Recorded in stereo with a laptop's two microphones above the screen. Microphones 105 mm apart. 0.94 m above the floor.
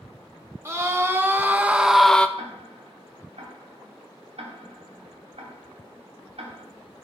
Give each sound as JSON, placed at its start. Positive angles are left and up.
{"t": 0.7, "sound": "a scream", "side_deg": -25, "distance_m": 1.7}
{"t": 2.4, "sound": "ticking", "side_deg": -75, "distance_m": 1.9}